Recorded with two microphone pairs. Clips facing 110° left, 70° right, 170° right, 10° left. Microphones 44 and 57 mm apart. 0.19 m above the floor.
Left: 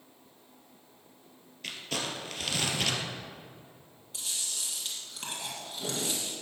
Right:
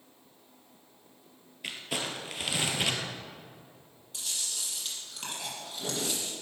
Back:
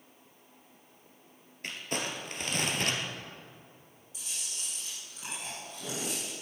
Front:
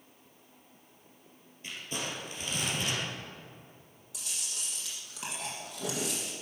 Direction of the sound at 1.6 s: 145° right.